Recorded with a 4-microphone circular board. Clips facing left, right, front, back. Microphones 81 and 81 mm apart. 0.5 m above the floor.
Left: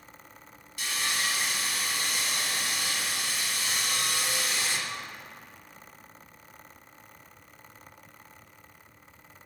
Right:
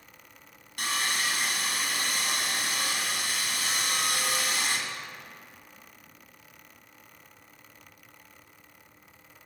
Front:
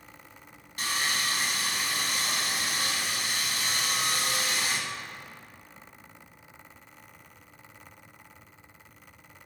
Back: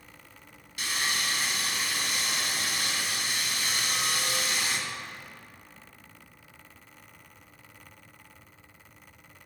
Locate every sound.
0.8 s sawing: 50° right, 1.9 m